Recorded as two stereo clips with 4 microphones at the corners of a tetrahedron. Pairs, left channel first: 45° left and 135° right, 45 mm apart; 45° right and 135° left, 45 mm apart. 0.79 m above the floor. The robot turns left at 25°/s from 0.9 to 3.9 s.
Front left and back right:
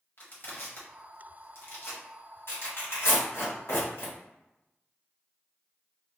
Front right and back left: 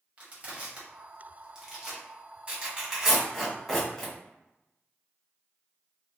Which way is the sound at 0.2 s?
80° left.